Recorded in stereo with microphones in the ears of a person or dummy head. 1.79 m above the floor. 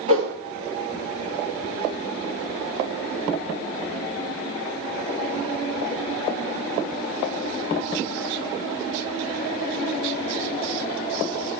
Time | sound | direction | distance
0.1 | a whoosh | 40° right (ahead or behind) | 1.8 m